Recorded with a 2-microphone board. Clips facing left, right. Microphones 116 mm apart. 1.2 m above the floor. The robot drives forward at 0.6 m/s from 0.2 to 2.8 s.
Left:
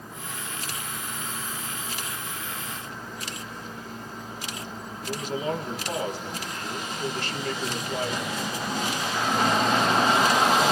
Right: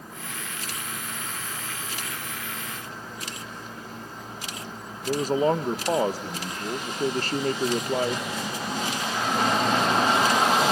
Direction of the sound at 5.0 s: 40° right (ahead or behind).